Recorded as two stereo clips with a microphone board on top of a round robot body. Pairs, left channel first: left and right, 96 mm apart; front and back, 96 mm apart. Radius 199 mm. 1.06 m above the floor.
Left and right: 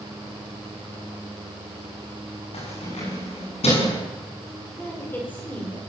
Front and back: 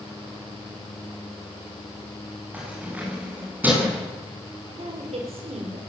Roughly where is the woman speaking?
Behind.